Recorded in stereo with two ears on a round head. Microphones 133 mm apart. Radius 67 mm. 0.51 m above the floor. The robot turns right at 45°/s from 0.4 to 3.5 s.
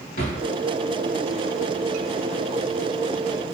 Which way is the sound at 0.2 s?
55° left (ahead or behind).